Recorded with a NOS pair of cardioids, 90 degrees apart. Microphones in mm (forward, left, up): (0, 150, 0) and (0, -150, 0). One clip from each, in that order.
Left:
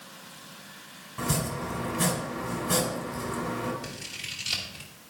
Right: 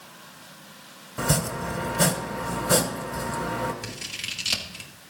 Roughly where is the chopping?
Ahead right.